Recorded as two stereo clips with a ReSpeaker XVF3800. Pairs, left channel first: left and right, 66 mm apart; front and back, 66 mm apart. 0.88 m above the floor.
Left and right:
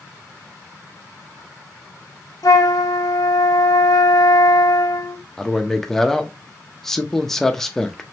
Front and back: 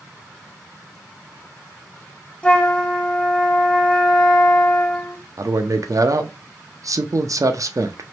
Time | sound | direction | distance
2.4 | a flute | 70° left | 0.7 m
5.4 | a man speaking | 175° left | 0.6 m